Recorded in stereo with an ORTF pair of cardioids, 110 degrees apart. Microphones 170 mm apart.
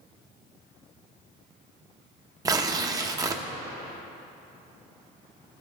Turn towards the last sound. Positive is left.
turn(degrees=-20)